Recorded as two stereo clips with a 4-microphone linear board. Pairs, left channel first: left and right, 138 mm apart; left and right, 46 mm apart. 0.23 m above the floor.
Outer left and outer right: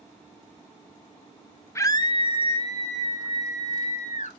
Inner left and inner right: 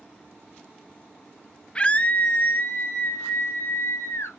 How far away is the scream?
About 1.0 m.